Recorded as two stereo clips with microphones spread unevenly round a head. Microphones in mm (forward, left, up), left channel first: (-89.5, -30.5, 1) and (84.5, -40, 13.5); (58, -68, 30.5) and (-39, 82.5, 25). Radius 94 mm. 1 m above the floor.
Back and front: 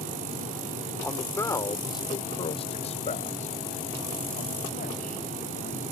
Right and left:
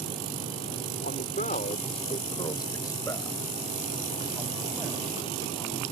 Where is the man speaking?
100° right; by 5.8 s 145° right.